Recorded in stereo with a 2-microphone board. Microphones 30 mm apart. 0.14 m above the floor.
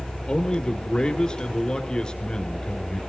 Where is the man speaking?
30° left (ahead or behind), 2 m.